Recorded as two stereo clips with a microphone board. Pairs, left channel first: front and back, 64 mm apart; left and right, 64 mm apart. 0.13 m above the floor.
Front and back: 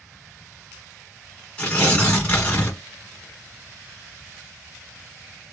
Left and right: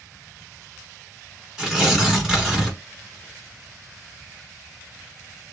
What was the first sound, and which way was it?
Tearing paper, 25° right.